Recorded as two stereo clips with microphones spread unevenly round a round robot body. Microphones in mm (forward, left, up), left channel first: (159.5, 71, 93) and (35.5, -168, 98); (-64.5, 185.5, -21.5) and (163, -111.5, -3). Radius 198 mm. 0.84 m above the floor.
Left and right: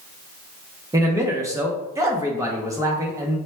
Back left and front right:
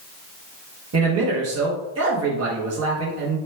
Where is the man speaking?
45° right, 0.8 m.